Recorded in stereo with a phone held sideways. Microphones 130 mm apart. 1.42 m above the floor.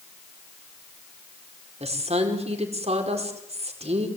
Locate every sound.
1.8 s a woman speaking: 55° right (ahead or behind), 4.5 m